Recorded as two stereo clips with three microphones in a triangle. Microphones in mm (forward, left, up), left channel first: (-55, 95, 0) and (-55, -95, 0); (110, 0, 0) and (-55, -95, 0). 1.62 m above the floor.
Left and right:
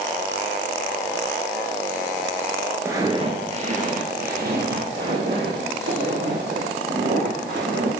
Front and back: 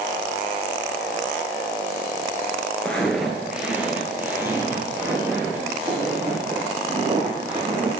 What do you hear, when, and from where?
2.9 s footsteps: 45° right, 1.6 m; by 7.9 s 80° right, 6 m